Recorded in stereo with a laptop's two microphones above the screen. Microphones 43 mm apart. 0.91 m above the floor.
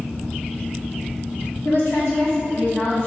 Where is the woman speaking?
55° left (ahead or behind), 1.3 m.